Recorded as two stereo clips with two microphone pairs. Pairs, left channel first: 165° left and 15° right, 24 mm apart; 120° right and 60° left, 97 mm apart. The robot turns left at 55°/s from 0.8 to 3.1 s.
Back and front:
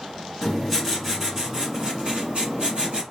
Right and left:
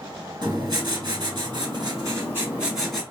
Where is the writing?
85° left, 1.8 m; by 3.0 s 35° right, 1.8 m.